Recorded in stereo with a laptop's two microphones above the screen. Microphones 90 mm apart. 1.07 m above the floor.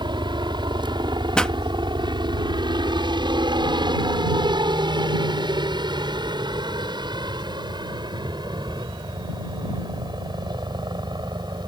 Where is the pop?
10° left (ahead or behind).